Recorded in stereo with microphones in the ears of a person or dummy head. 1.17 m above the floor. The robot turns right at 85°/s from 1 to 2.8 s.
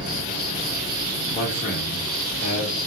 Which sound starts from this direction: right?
An insect, at 0.0 s.